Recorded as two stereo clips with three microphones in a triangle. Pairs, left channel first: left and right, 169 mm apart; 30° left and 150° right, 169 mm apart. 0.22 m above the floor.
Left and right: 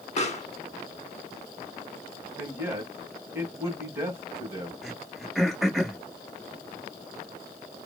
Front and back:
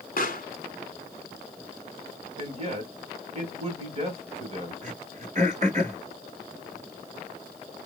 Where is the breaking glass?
No breaking glass in this recording.